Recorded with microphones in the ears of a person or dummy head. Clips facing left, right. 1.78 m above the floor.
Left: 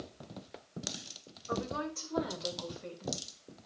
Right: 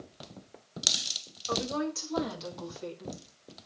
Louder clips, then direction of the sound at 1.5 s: Right 5 dB; 70° right (ahead or behind).